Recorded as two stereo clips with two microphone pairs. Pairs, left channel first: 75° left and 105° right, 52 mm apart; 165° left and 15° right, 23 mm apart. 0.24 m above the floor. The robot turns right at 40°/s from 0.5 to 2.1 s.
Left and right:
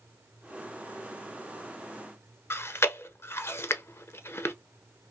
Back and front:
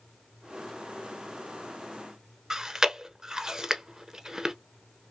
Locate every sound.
2.5 s chewing: 50° left, 0.5 m